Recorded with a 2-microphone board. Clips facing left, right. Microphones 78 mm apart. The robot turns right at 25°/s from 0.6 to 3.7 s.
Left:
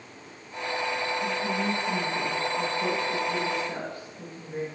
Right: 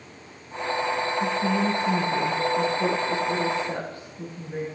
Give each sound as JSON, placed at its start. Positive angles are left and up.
{"t": 1.2, "sound": "a woman speaking", "azimuth_deg": -90, "distance_m": 8.0}